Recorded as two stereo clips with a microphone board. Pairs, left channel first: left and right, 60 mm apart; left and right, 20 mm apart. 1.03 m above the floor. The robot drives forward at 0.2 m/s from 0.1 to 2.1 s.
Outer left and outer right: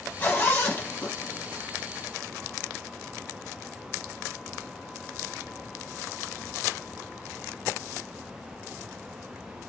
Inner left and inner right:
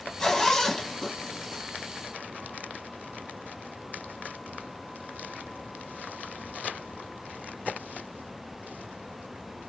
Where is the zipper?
30° left (ahead or behind), 1.3 m; by 1.6 s 25° left (ahead or behind), 1.6 m.